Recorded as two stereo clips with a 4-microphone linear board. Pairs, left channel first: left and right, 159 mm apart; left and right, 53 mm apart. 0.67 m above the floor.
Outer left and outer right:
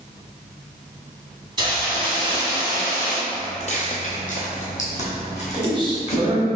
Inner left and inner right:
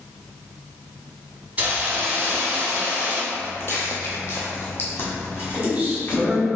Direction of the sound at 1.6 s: 30° right (ahead or behind).